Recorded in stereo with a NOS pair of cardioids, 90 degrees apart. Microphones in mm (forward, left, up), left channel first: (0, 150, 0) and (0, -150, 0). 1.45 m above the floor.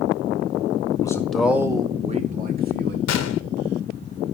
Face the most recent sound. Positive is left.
turn(degrees=60)